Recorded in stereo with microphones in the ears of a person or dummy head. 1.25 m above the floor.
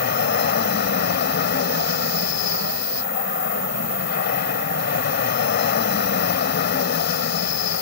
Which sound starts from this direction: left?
An aircraft, at 0.0 s.